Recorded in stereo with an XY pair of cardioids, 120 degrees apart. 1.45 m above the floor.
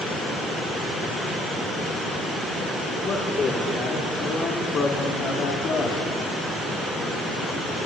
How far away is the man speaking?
About 5 m.